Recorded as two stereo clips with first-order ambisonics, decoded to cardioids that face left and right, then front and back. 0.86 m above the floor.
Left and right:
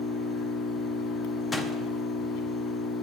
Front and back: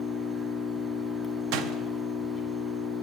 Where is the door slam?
165° left, 0.9 m.